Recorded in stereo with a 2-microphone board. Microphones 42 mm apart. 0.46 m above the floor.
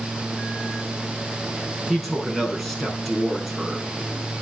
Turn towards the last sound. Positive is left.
turn(degrees=0)  # may be behind; listen again after turning